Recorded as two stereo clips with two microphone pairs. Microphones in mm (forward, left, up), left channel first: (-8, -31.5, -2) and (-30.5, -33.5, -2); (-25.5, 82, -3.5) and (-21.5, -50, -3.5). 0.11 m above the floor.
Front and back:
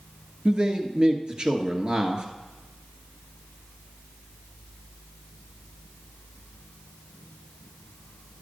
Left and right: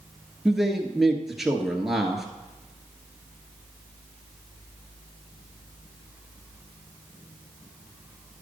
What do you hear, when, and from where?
0.5 s a man speaking: 175° right, 1.5 m